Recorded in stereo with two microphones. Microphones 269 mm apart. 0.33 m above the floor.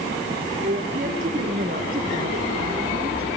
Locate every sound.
0.6 s a woman speaking: 35° right (ahead or behind), 6 m; by 3.3 s 40° right (ahead or behind), 4.5 m